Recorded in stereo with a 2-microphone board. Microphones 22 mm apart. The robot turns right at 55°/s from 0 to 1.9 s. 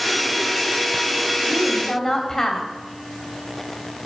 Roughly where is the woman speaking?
Centre.